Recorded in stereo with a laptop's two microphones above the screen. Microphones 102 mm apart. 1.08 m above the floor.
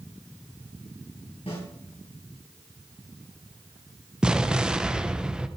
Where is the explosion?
10° right (ahead or behind), 0.6 m.